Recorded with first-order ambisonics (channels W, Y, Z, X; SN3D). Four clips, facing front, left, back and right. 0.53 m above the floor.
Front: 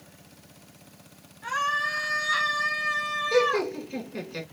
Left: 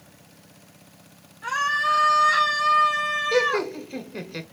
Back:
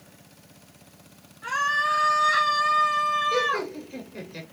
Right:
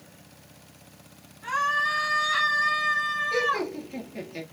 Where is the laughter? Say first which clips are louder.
Left 4 dB, front 2 dB; 75° left, 1.6 m.